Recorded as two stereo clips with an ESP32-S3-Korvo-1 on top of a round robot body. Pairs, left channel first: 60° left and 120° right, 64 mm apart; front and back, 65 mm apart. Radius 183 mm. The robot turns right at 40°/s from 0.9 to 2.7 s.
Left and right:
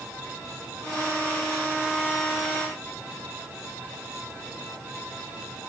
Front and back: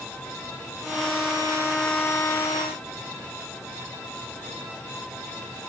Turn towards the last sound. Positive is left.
No sound to turn to.